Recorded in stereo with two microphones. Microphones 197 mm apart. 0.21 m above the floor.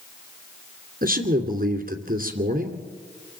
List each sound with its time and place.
1.0 s a man speaking: 50° right (ahead or behind), 2.5 m